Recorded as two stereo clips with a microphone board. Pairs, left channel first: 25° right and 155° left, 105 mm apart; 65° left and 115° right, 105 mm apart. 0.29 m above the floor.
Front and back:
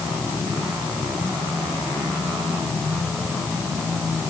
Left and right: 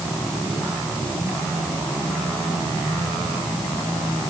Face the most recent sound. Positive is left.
No sound to turn to.